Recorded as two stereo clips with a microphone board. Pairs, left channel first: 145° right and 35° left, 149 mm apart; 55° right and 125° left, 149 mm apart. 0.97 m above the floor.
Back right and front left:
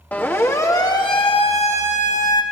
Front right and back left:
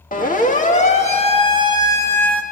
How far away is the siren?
About 2 m.